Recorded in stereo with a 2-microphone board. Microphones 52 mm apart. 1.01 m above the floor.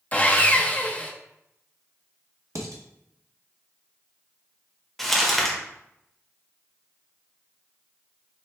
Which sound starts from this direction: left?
Sawing, at 0.1 s.